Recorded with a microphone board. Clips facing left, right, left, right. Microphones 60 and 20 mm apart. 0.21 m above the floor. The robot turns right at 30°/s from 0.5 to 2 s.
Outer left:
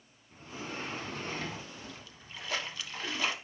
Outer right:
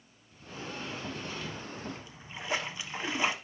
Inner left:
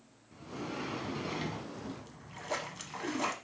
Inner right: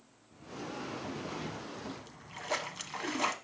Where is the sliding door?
60° left, 1.2 m; by 1.6 s 90° left, 1.2 m.